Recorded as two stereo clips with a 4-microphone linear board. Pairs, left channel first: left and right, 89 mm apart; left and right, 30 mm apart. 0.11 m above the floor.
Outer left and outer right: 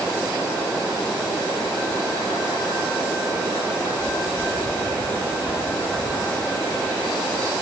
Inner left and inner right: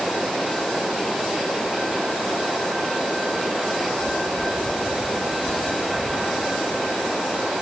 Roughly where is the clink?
I don't hear a clink.